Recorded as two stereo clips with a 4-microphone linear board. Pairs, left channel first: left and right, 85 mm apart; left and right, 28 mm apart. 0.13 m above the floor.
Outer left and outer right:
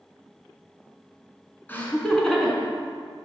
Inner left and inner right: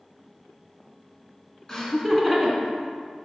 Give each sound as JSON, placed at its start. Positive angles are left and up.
{"t": 1.7, "sound": "laughter", "side_deg": 20, "distance_m": 1.5}